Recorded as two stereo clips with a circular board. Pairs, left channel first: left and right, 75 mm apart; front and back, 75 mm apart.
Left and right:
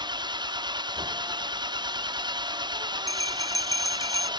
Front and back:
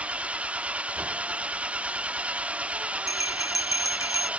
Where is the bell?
135° left.